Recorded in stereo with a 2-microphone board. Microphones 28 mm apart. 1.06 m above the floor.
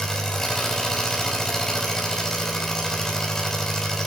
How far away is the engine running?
About 4.5 m.